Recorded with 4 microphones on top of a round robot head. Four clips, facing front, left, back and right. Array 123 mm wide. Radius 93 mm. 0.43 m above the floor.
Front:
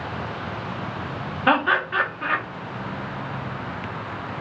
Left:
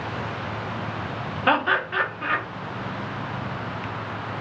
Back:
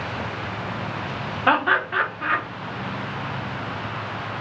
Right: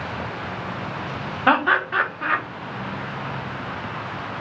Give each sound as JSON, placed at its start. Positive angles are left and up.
{"t": 1.5, "sound": "laughter", "azimuth_deg": -105, "distance_m": 1.0}